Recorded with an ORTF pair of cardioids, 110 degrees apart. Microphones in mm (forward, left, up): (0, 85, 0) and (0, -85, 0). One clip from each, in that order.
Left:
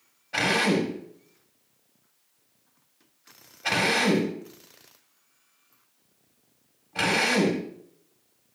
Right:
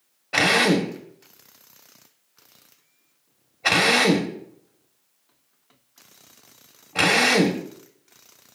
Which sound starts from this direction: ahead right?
A drill, at 0.3 s.